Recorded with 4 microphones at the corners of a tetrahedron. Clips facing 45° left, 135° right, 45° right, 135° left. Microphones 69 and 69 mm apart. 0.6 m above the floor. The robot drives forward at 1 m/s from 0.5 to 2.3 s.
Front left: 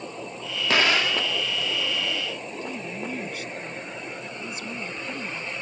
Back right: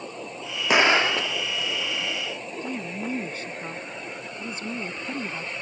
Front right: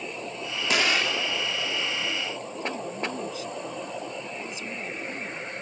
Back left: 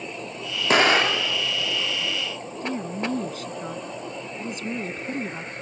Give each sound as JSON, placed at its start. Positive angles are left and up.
{"t": 0.7, "sound": "an explosion", "azimuth_deg": 160}
{"t": 2.6, "sound": "a woman speaking", "azimuth_deg": 170}